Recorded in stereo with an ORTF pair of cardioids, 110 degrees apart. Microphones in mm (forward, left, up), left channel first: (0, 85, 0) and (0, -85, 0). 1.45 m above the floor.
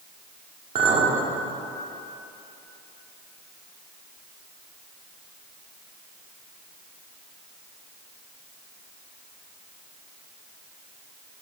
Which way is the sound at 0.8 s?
55° right.